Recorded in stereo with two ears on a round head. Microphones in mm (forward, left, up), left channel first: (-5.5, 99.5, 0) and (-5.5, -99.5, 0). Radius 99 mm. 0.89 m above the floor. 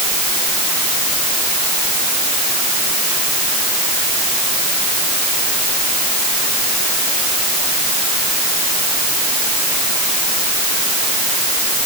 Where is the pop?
I don't hear a pop.